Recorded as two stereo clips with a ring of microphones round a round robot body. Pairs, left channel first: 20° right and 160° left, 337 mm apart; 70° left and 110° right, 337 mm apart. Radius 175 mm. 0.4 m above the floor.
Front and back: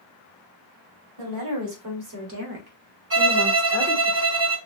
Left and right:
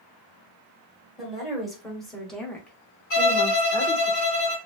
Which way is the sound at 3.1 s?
115° left.